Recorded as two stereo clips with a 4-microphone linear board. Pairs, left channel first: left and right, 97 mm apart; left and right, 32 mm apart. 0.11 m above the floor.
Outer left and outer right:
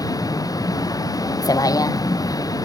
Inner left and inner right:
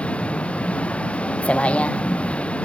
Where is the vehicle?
40° left (ahead or behind).